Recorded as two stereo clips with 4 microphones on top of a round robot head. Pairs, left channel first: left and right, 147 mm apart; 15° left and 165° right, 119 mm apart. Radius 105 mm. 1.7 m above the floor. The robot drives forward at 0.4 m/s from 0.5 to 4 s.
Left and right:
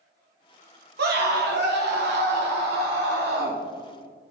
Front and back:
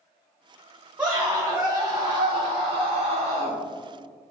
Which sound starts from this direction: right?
A scream, at 1.0 s.